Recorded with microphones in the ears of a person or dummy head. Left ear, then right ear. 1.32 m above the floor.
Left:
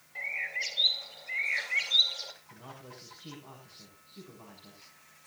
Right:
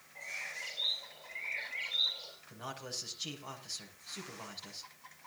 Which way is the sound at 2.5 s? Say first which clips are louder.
Right 6 dB; 55° right (ahead or behind).